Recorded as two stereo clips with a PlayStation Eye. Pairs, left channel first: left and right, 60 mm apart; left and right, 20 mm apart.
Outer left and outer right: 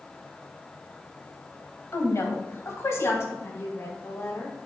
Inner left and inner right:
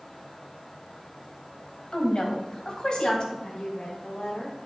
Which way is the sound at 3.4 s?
50° left (ahead or behind).